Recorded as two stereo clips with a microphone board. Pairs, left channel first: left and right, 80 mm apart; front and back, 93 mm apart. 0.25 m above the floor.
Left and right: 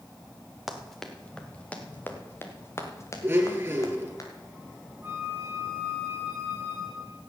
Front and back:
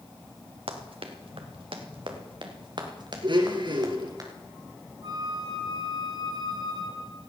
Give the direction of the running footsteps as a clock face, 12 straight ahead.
6 o'clock.